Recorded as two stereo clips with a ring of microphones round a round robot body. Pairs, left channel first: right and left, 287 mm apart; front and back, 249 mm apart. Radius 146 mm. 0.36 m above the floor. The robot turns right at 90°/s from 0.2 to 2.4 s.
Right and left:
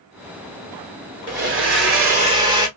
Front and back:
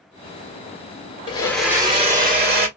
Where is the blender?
60° left, 1.5 m; by 2.7 s 160° left, 1.5 m.